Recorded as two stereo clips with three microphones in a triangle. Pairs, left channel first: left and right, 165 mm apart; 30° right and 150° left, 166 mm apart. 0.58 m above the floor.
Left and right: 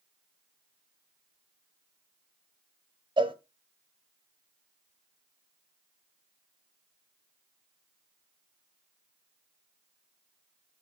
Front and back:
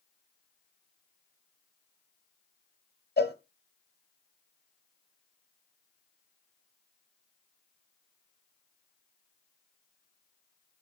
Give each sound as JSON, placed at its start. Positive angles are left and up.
{"t": 3.2, "sound": "a cowbell", "azimuth_deg": -30, "distance_m": 1.1}